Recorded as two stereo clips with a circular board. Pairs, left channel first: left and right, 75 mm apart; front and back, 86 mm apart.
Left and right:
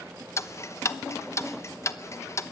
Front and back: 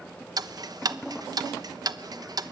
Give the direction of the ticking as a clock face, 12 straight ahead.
7 o'clock.